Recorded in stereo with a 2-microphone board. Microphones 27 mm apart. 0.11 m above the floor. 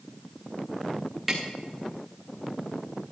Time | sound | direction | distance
1.3 | tapping | 5° right (ahead or behind) | 2.5 m